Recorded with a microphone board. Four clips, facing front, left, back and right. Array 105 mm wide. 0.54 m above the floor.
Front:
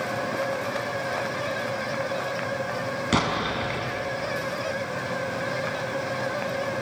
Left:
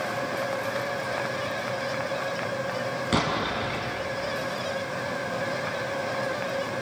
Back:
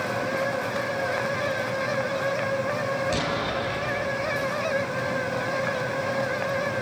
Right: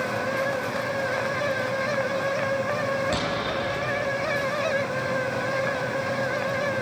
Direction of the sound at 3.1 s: 25° left.